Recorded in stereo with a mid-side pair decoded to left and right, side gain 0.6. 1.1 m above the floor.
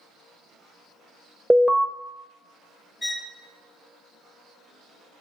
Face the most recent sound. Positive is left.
turn(degrees=10)